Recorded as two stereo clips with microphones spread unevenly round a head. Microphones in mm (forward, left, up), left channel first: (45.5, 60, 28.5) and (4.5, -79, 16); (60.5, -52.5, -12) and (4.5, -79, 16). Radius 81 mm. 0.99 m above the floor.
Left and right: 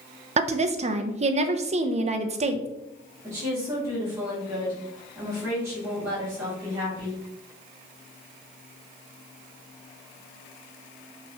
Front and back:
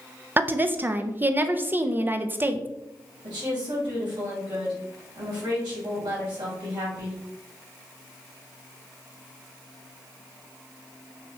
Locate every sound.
0.4 s a woman speaking: 80° right, 0.6 m
3.2 s a woman speaking: straight behind, 2.5 m